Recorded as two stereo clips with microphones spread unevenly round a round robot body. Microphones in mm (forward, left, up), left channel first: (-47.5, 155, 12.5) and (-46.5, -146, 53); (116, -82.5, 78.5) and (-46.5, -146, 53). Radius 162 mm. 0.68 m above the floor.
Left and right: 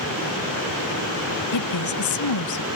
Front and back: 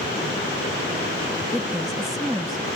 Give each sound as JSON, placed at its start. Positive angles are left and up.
{"t": 1.5, "sound": "a woman speaking", "azimuth_deg": 115}